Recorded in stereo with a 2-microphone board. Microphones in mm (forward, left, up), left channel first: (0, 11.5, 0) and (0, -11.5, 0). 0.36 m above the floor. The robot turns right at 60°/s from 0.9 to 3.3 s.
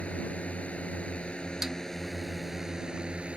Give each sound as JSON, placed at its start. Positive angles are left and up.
{"t": 0.0, "sound": "a drone", "azimuth_deg": 95}
{"t": 1.6, "sound": "a snare drum", "side_deg": -20}